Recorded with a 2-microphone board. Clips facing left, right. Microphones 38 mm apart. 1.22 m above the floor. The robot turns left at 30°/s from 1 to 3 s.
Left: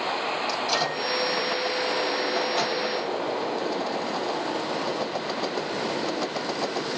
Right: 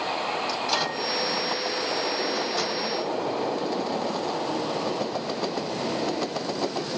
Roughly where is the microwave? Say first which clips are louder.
Left 1 dB; centre.